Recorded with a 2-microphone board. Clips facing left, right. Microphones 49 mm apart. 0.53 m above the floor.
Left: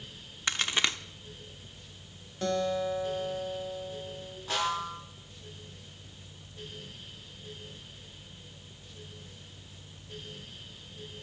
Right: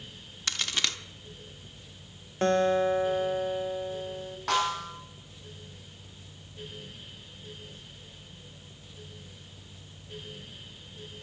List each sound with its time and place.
0.5 s a crack: 20° left (ahead or behind), 0.8 m
2.4 s a guitar: 45° right (ahead or behind), 1.1 m
4.5 s a snare drum: 70° right (ahead or behind), 5 m